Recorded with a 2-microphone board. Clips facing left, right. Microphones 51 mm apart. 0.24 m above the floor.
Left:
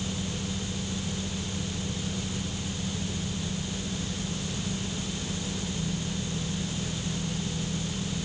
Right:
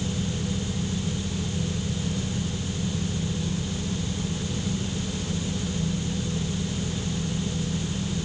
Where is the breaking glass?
No breaking glass in this recording.